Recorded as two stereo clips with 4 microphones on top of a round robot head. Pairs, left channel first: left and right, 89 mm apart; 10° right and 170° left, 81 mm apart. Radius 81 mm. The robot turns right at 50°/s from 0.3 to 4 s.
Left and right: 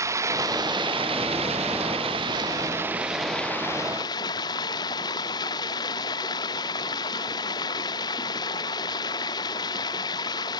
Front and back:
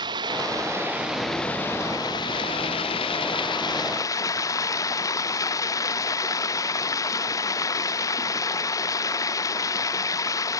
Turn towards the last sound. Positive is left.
turn(degrees=40)